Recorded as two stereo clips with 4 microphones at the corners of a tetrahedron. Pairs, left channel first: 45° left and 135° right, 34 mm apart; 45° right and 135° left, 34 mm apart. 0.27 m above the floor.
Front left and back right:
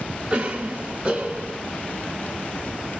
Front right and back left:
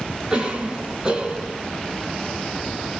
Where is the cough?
Straight behind, 1.5 m.